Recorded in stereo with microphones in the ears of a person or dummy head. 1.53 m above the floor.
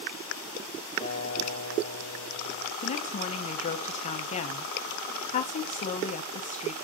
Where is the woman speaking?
35° left (ahead or behind), 2.5 m.